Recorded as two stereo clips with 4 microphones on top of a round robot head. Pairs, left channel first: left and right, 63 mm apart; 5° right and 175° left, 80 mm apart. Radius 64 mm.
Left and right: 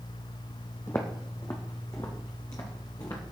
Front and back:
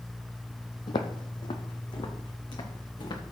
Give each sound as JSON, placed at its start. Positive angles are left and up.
{"t": 0.9, "sound": "footsteps", "azimuth_deg": 20, "distance_m": 0.9}